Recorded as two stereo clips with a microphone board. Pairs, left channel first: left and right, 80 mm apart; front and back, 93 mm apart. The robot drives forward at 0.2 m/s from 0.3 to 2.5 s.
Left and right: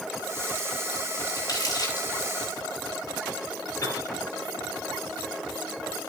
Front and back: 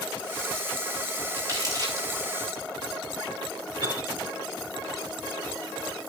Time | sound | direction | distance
1.4 | crumpling | 130° left | 8.5 m
3.8 | a piano | 145° left | 9.5 m